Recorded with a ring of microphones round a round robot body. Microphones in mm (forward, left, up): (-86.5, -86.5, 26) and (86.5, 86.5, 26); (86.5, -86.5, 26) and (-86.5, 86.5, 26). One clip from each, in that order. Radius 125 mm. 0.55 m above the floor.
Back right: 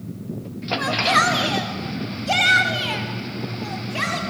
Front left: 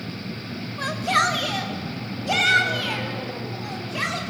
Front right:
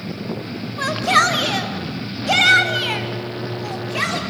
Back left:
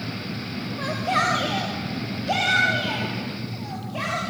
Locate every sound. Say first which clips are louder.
0.8 s a shout: back right 3 dB, front right 7 dB; 45° right, 3 m